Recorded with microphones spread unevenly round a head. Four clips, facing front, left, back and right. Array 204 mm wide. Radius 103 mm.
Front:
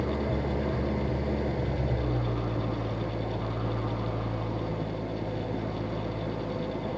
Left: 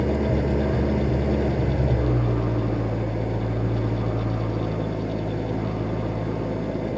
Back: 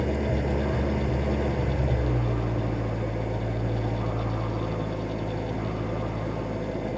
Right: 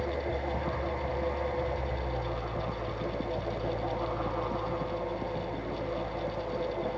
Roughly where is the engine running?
Left.